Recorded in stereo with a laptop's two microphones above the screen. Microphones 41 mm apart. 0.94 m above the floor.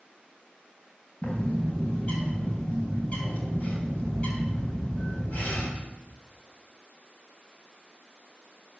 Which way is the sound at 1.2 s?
35° left (ahead or behind).